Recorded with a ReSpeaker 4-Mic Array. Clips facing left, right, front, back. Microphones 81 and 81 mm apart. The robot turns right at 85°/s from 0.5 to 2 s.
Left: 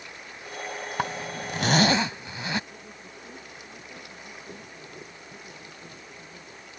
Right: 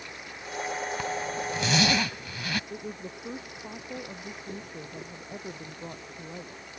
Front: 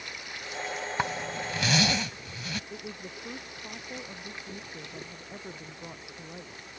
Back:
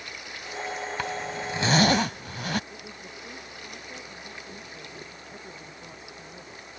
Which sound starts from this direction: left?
A zipper, at 1.0 s.